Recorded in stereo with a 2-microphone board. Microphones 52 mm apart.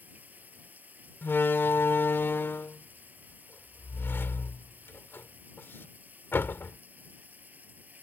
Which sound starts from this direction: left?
A door slam, at 1.2 s.